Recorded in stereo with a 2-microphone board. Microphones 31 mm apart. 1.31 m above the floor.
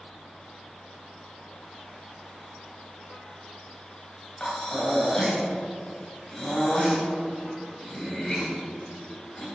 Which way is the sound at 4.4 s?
20° left (ahead or behind).